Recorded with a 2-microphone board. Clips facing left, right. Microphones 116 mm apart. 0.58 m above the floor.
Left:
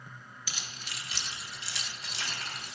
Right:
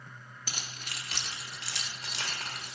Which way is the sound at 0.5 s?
45° right (ahead or behind).